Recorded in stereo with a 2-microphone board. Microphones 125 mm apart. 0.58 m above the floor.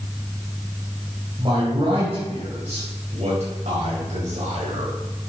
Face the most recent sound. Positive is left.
turn(degrees=-70)  # may be behind; listen again after turning